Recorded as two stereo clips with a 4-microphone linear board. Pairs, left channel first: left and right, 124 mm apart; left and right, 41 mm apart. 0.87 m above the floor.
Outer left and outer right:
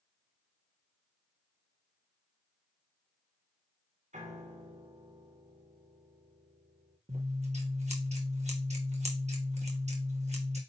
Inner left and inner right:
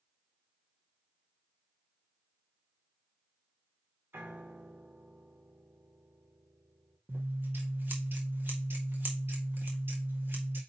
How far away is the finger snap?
No finger snap in this recording.